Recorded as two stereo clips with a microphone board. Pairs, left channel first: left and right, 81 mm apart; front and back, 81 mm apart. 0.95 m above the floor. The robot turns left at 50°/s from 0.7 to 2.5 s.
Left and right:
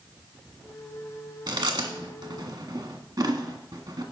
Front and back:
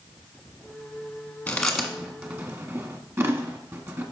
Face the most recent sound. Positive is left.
turn(degrees=-125)